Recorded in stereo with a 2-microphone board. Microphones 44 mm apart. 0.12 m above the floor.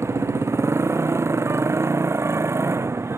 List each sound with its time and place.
0.0 s a motorcycle: 85° right